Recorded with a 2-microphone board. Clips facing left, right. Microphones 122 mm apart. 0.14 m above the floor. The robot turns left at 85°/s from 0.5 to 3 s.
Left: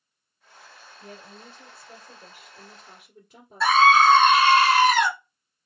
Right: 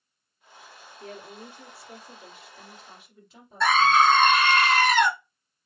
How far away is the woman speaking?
About 2.5 m.